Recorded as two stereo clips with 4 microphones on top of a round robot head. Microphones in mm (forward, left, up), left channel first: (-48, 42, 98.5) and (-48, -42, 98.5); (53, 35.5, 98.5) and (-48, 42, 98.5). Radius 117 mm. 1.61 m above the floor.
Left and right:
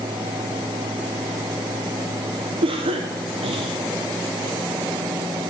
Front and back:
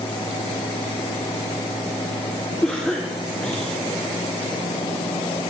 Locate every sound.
2.6 s a cough: 85° right, 1.3 m